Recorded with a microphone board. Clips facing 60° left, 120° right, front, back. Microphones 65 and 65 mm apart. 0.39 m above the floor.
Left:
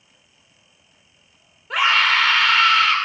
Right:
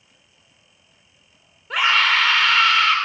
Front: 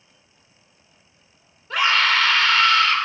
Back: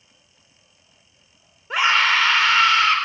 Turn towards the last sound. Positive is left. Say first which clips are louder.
# left 1 dB, back 1 dB
turn(degrees=150)